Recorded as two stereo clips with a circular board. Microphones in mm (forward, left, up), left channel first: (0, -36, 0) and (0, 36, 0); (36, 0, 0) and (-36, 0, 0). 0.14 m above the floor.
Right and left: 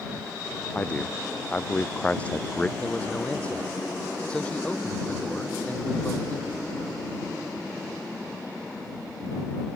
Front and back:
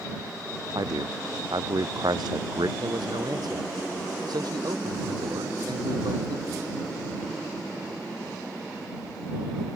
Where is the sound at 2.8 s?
165° right.